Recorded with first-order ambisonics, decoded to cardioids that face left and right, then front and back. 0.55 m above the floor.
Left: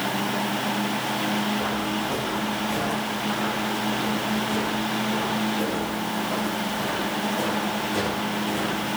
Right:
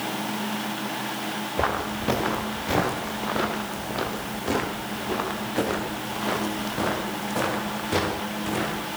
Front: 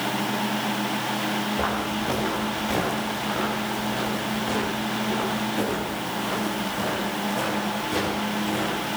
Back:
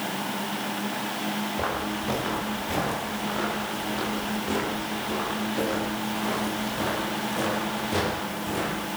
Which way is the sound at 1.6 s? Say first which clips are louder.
Even, front 3 dB; 85° right.